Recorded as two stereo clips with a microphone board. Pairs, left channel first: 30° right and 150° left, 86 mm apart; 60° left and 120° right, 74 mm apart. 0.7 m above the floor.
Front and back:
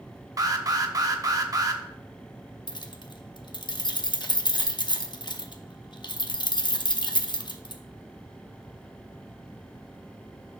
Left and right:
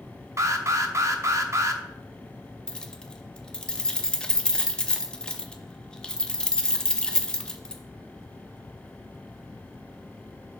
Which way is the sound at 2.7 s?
15° right.